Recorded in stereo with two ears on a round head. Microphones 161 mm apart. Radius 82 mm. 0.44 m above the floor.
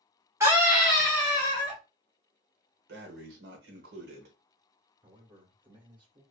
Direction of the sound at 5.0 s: 25° right (ahead or behind).